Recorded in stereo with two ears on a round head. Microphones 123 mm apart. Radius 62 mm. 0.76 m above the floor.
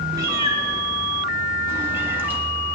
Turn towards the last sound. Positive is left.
turn(degrees=-15)  # may be behind; listen again after turning